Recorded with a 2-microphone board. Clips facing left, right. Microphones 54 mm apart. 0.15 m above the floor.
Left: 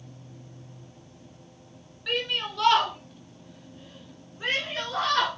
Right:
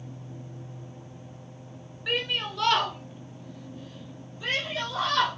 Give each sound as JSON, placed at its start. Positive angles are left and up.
{"t": 2.1, "sound": "a shout", "side_deg": -10, "distance_m": 1.5}